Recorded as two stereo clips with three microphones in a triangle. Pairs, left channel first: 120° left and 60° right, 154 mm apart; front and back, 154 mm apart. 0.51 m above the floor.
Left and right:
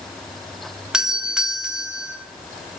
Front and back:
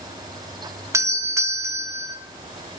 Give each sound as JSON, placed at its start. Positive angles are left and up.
{"t": 0.9, "sound": "a doorbell", "azimuth_deg": -135, "distance_m": 1.1}